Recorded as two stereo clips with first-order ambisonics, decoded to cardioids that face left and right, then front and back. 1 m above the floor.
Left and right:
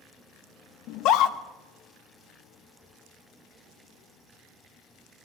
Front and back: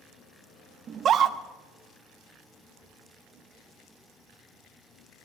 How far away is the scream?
About 0.7 m.